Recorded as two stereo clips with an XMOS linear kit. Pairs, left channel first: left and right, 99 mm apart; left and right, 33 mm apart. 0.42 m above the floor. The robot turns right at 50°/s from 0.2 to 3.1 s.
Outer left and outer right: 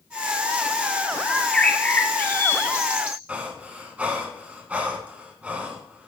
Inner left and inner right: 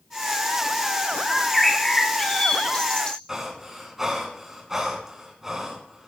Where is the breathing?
15° right (ahead or behind), 2 m.